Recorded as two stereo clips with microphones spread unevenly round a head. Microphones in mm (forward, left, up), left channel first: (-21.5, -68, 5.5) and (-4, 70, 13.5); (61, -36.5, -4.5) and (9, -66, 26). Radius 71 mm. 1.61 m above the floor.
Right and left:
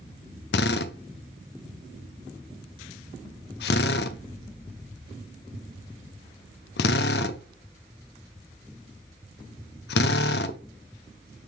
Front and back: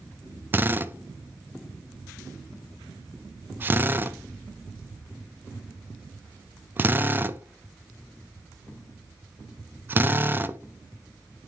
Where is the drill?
105° right, 0.7 m.